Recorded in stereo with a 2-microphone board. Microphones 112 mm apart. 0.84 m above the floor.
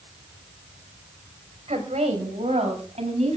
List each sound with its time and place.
1.7 s a woman speaking: 80° right, 4.5 m; by 3.4 s 85° right, 6.5 m